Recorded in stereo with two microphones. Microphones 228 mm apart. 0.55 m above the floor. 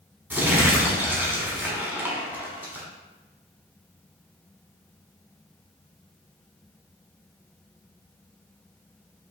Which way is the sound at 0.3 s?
10° right (ahead or behind).